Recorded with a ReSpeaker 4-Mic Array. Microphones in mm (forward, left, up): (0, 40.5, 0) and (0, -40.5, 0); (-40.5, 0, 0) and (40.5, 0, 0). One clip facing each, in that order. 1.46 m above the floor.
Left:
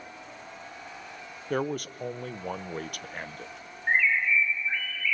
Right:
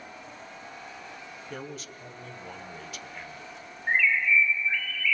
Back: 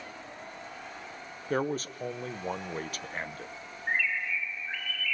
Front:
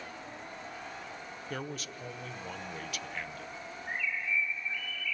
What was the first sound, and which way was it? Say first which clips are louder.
A man speaking: left 12 dB, back 11 dB; 130° left.